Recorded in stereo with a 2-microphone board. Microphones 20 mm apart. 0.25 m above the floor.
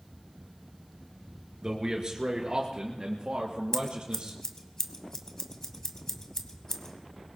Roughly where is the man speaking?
Right.